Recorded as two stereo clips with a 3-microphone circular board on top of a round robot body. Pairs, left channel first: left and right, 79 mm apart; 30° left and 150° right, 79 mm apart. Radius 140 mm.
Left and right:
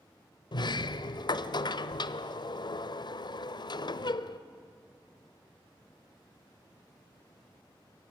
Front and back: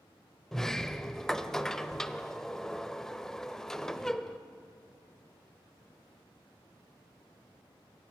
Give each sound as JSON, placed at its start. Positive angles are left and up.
{"t": 0.5, "sound": "a sliding door", "azimuth_deg": 115, "distance_m": 0.8}